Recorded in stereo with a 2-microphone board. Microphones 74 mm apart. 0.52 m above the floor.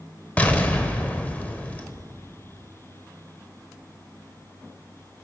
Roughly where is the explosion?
Left.